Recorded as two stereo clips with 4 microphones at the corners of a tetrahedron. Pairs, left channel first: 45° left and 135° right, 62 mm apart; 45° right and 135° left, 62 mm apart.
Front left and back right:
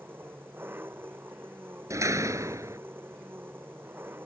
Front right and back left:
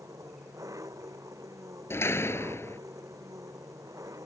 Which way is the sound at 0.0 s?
170° left.